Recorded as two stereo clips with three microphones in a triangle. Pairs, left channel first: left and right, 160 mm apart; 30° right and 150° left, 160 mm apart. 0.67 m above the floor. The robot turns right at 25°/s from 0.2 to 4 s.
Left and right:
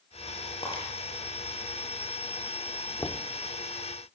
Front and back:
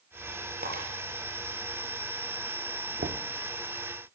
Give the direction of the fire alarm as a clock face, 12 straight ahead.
No fire alarm in this recording.